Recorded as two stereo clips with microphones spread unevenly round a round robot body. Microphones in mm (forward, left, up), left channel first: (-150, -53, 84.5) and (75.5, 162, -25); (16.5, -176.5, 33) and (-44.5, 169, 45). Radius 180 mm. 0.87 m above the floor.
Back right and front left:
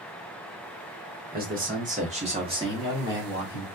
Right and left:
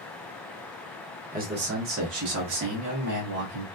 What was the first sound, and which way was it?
A man speaking, 40° left.